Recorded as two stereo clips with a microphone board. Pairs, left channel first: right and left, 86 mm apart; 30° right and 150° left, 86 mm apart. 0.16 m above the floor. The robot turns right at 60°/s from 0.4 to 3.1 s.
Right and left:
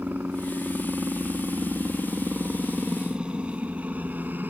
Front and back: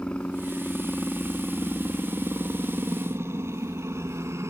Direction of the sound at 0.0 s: 40° left.